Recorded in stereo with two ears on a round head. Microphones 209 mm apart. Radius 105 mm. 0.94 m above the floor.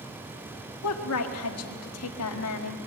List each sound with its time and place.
0.8 s a woman speaking: 70° left (ahead or behind), 1.6 m